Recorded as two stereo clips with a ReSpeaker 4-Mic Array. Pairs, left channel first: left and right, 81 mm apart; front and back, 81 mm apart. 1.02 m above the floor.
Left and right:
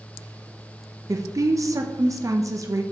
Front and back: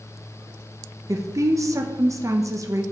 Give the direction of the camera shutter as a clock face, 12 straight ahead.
I don't hear a camera shutter.